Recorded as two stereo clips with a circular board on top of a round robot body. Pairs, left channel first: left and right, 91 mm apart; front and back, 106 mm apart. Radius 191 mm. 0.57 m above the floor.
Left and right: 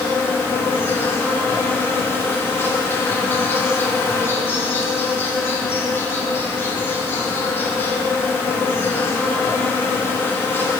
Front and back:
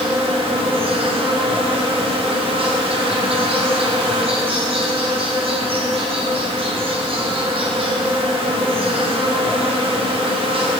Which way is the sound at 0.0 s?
155° left.